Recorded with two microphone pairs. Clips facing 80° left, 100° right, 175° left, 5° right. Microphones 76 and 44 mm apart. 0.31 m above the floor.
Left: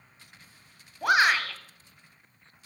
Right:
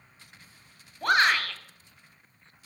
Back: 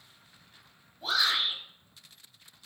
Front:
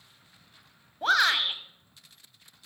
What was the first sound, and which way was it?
A shout, straight ahead.